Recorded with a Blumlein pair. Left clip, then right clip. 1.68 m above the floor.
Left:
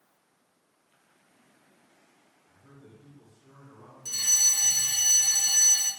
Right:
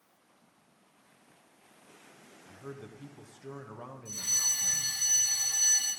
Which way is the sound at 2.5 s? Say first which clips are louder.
Right 9 dB; 35° right.